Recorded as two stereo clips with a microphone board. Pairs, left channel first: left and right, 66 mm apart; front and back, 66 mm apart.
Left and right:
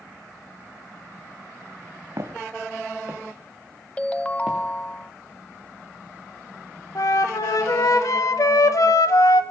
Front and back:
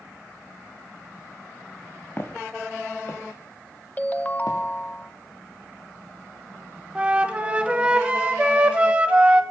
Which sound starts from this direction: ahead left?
A ringtone, at 4.0 s.